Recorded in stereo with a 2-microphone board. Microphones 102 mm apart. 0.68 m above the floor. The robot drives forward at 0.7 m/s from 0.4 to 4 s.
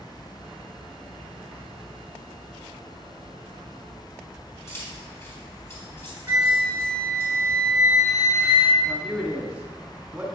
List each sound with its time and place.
4.7 s keys jangling: 25° left (ahead or behind), 3.5 m
6.3 s a flute: 20° right (ahead or behind), 1.6 m
8.8 s a man speaking: 15° right (ahead or behind), 2 m